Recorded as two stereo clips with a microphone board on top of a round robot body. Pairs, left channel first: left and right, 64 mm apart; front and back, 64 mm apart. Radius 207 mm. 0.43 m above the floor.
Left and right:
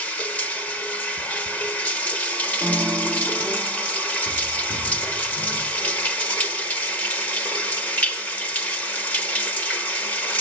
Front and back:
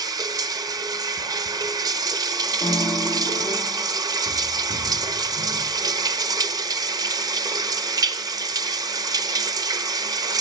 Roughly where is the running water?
Behind left.